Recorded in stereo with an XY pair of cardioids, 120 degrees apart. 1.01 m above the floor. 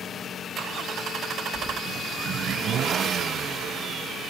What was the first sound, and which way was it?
Keys jangling, 35° left.